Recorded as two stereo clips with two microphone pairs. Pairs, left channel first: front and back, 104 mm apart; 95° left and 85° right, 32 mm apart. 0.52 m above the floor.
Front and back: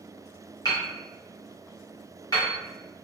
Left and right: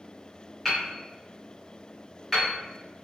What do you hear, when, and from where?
0.7 s hammering: straight ahead, 1.2 m